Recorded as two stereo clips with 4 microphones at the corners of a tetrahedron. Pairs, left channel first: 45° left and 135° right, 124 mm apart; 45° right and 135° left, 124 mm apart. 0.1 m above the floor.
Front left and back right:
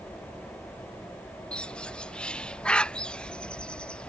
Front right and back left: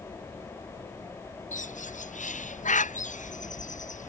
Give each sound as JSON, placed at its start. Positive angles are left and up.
{"t": 1.5, "sound": "a bird", "azimuth_deg": -35}